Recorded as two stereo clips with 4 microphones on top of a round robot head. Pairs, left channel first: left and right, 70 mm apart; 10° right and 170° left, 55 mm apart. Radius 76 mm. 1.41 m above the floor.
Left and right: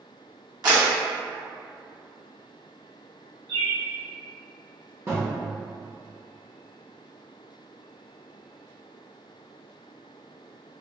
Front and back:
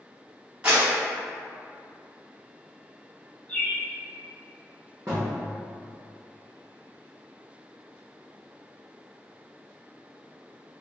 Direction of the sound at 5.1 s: 130° right.